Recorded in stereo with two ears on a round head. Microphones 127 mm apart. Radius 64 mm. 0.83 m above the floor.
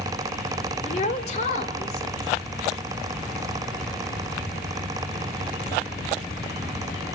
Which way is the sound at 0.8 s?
50° left (ahead or behind).